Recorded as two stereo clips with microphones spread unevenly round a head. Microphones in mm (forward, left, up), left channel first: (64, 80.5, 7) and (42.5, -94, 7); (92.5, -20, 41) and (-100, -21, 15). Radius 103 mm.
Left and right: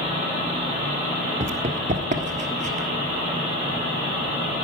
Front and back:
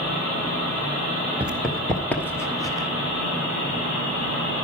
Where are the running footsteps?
90° right, 1.3 m; by 2.9 s 60° right, 1.7 m.